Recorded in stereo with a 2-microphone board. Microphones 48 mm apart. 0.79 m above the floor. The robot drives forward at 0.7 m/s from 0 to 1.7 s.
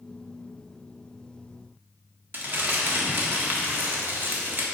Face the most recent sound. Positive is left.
turn(degrees=-45)  # may be behind; listen again after turning